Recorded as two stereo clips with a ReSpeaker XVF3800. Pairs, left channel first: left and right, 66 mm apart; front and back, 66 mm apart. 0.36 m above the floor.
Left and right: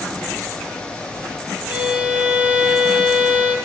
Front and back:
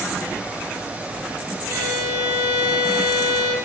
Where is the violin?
155° right, 1.0 m.